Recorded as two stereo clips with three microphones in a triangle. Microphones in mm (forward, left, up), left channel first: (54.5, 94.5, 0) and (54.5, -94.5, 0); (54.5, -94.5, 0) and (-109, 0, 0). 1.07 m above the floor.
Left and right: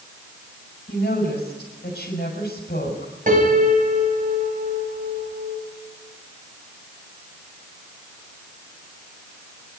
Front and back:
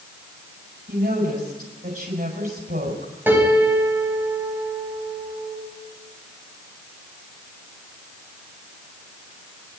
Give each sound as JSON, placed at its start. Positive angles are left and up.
{"t": 0.9, "sound": "a woman speaking", "azimuth_deg": 125, "distance_m": 6.0}
{"t": 3.3, "sound": "a piano", "azimuth_deg": -130, "distance_m": 4.5}